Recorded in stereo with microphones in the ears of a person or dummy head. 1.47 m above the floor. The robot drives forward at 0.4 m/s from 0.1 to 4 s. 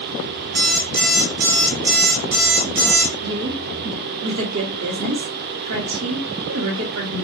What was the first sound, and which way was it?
An alarm clock, 55° right (ahead or behind).